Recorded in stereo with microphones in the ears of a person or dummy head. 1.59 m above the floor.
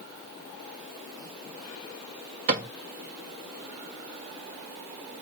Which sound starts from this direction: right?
A cupboard door, at 2.5 s.